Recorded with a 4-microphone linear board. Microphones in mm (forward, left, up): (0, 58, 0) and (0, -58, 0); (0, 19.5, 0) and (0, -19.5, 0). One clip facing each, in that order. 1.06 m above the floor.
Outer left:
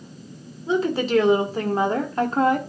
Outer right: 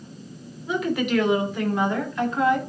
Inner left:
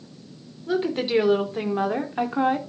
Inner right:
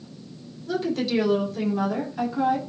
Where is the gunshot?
I don't hear a gunshot.